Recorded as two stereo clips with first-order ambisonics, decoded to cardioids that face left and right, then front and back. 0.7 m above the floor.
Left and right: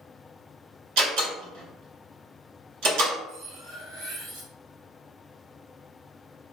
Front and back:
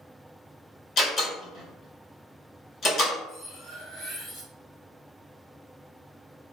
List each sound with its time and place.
1.0 s a door slam: 65° right, 1.6 m
3.3 s cutlery clinking: 125° right, 1.2 m